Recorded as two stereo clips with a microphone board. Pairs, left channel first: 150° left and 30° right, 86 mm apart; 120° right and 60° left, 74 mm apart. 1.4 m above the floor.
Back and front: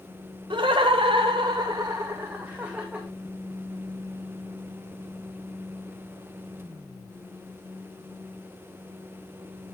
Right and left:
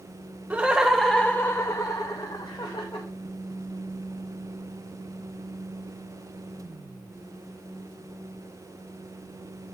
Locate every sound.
0.5 s laughter: 10° right, 0.6 m; by 3.1 s 110° right, 1.1 m